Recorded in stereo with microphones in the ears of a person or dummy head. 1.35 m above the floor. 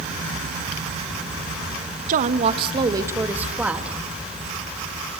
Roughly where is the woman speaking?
Right.